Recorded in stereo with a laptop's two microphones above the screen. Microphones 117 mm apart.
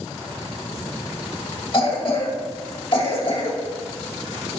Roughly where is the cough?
Left.